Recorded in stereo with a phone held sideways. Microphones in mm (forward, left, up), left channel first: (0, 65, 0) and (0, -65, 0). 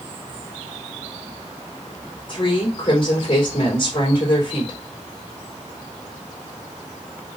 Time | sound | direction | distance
2.3 | a woman speaking | 40° left (ahead or behind) | 3 m